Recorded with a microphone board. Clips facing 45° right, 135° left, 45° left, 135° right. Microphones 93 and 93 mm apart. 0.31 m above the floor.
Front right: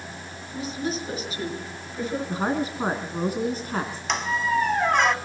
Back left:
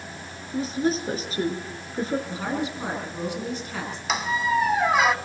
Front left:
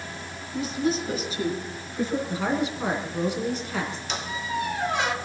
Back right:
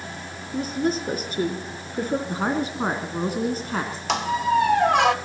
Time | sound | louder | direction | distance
0.5 | a woman speaking | back left 5 dB, back right 2 dB | 175° right | 5 m
2.3 | a woman speaking | front right 3 dB, back right 1 dB | 90° right | 2.5 m
4.1 | a squeak | back left 1 dB, back right 14 dB | 140° right | 0.8 m